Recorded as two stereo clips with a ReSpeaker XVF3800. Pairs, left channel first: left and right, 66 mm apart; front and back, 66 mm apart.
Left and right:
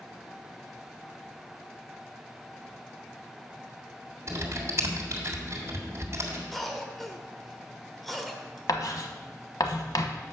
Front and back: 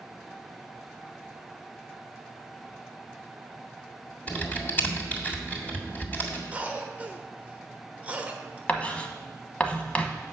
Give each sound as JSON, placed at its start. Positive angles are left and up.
{"t": 4.3, "sound": "typing on a keyboard", "azimuth_deg": -60, "distance_m": 1.9}
{"t": 6.5, "sound": "a cough", "azimuth_deg": 175, "distance_m": 1.0}
{"t": 8.7, "sound": "writing", "azimuth_deg": 70, "distance_m": 0.9}